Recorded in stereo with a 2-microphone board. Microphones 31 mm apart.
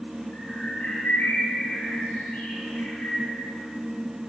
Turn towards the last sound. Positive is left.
turn(degrees=70)  # may be behind; listen again after turning